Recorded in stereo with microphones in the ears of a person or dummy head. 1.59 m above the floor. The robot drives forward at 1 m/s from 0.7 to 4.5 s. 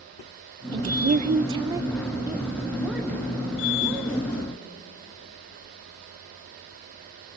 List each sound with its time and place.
0.7 s a woman speaking: 25° right (ahead or behind), 0.6 m; by 4.6 s 5° right (ahead or behind), 3.5 m